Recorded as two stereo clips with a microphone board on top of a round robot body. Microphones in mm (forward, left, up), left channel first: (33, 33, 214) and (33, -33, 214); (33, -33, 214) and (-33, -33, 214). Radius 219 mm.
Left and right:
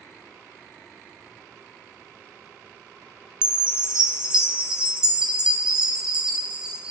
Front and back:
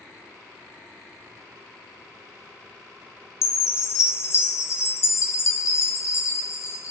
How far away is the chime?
About 0.7 m.